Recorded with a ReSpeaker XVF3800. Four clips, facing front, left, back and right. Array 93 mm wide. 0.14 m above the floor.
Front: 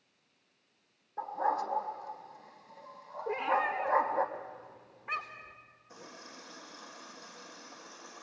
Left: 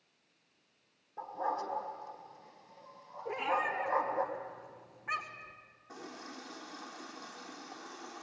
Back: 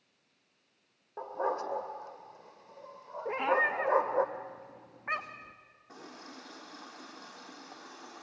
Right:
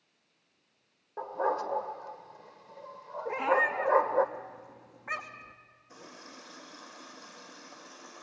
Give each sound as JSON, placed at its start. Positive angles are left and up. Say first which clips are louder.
{"t": 1.2, "sound": "a dog barking", "louder": "right 5 dB, front 2 dB", "azimuth_deg": -130, "distance_m": 2.0}
{"t": 3.2, "sound": "a cat meowing", "louder": "right 6 dB, back 2 dB", "azimuth_deg": -160, "distance_m": 2.5}
{"t": 5.9, "sound": "a running tap", "louder": "left 3 dB, back 2 dB", "azimuth_deg": 135, "distance_m": 4.0}